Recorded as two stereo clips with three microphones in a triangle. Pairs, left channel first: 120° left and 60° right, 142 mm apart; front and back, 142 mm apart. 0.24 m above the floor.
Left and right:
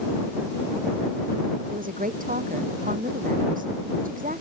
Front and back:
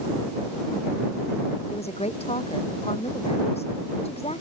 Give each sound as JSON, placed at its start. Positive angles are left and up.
{"t": 1.7, "sound": "a woman speaking", "azimuth_deg": -45}